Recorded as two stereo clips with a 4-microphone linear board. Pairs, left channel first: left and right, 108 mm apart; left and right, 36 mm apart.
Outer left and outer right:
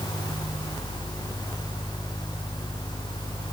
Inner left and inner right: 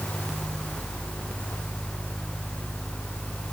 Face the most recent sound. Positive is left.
No sound to turn to.